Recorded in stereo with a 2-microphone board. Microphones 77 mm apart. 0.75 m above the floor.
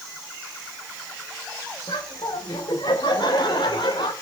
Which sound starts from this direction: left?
Laughter, at 1.9 s.